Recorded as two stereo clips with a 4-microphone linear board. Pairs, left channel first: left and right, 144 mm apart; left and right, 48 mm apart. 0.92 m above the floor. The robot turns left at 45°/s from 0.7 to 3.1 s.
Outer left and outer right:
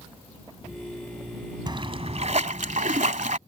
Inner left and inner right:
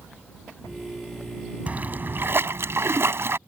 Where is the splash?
35° right; by 3.4 s 100° right.